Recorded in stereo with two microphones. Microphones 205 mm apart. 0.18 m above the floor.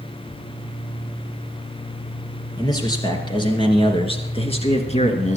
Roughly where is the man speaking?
Centre.